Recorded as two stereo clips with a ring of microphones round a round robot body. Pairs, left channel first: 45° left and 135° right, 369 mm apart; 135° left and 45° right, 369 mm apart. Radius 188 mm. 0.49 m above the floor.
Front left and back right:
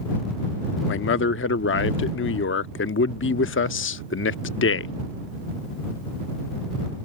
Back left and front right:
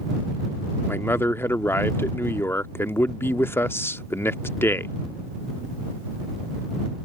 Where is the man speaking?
55° left.